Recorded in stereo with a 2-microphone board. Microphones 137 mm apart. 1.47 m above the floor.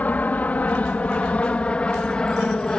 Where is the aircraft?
10° left (ahead or behind); by 2.8 s 5° left (ahead or behind).